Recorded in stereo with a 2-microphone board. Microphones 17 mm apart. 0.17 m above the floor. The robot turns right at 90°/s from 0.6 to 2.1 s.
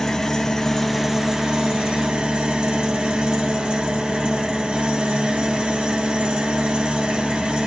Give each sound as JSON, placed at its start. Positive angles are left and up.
{"t": 0.0, "sound": "an engine running", "azimuth_deg": 155, "distance_m": 1.0}